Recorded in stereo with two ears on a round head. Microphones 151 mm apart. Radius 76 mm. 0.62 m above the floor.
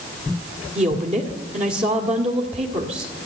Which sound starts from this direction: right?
A woman speaking, at 0.8 s.